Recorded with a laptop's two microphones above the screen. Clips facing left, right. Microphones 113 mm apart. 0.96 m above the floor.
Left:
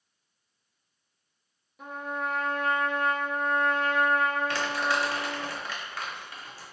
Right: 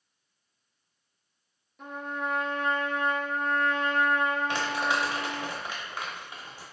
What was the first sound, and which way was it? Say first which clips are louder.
A trumpet: left 1 dB; 5° left (ahead or behind).